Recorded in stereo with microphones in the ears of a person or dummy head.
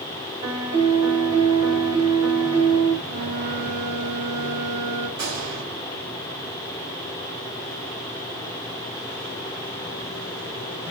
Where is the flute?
40° right (ahead or behind), 1.8 m.